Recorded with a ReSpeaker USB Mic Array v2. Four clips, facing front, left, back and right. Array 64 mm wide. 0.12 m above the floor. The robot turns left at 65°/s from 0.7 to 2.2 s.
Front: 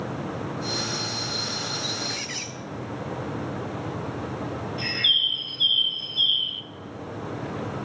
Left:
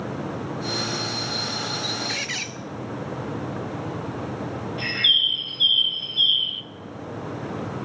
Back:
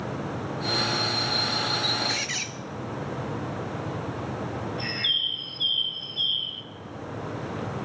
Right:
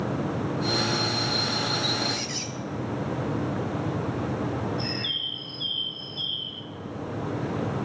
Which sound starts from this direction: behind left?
A squeak, at 2.1 s.